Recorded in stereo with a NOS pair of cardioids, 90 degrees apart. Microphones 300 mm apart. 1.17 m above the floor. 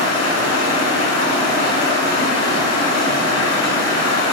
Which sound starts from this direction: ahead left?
Running water, at 0.0 s.